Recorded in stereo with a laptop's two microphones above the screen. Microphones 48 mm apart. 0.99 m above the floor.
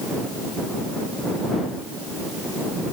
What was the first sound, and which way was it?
Only background noise.